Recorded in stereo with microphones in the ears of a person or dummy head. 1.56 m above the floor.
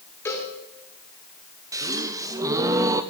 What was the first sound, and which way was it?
A cowbell, 10° left (ahead or behind).